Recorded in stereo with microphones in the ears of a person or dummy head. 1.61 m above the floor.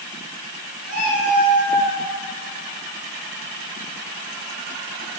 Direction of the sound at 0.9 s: 70° right (ahead or behind).